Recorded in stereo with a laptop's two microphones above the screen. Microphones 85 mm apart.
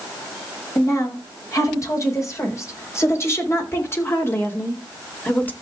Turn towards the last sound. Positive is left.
turn(degrees=20)  # may be behind; listen again after turning